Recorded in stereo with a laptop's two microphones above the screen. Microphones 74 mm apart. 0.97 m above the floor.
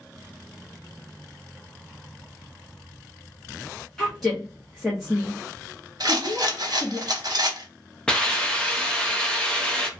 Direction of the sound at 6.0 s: 60° right (ahead or behind).